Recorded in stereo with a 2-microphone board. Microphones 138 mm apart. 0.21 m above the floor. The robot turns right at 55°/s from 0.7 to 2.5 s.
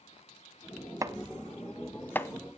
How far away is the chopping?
About 0.9 m.